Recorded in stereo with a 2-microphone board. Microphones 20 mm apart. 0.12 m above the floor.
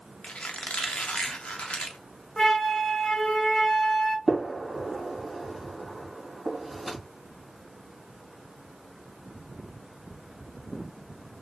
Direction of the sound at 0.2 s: 80° left.